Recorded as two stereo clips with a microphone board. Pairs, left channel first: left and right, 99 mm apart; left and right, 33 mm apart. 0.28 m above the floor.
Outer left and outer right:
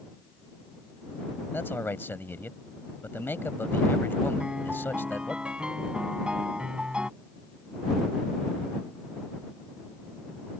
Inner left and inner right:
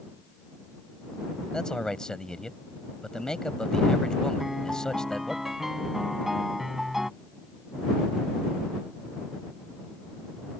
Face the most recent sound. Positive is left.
turn(degrees=-10)  # may be behind; listen again after turning